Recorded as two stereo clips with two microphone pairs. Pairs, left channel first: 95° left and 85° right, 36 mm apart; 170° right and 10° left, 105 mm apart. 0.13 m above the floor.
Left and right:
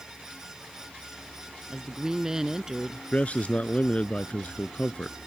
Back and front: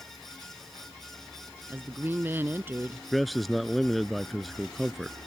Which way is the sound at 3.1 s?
100° left.